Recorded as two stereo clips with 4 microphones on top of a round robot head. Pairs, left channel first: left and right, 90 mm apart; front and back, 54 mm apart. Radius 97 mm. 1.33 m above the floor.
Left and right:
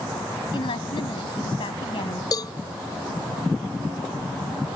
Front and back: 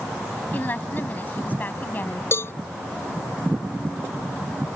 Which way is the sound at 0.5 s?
55° left.